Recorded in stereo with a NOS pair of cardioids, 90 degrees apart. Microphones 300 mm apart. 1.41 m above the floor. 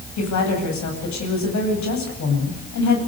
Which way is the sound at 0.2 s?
60° left.